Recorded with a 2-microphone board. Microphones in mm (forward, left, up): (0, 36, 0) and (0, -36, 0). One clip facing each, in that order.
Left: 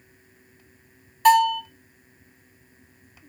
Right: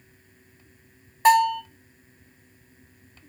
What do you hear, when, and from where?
1.2 s a bell: 25° right (ahead or behind), 1.7 m